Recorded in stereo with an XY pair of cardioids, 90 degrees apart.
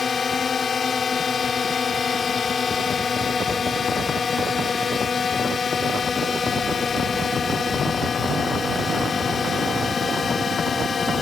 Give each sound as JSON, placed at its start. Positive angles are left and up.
{"t": 0.0, "sound": "a drone", "azimuth_deg": 40}